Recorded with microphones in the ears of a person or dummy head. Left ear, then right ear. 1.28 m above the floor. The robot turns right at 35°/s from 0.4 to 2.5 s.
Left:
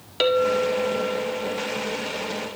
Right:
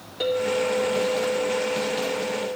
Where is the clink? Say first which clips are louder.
Left 3 dB; 60° left, 1.8 m; by 2.6 s 130° left, 1.8 m.